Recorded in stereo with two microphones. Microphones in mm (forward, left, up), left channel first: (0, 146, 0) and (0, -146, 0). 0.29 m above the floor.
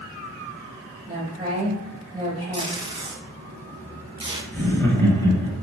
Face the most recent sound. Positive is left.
turn(degrees=10)  # may be behind; listen again after turning